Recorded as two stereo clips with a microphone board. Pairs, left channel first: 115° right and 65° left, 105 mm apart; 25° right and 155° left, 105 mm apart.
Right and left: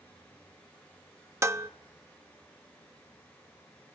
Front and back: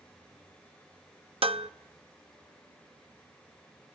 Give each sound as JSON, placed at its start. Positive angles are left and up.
{"t": 1.4, "sound": "dishes clattering", "azimuth_deg": 130, "distance_m": 0.7}